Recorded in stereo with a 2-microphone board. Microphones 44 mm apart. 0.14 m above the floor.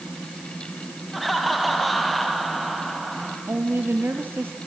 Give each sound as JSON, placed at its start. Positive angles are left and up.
{"t": 1.1, "sound": "laughter", "side_deg": 0, "distance_m": 3.0}
{"t": 3.5, "sound": "a woman speaking", "side_deg": -60, "distance_m": 3.0}